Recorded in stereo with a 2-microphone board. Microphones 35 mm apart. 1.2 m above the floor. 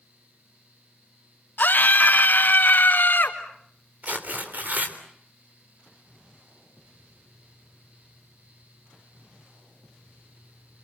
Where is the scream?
60° left (ahead or behind), 2.5 m; by 3.4 s 65° left (ahead or behind), 4 m.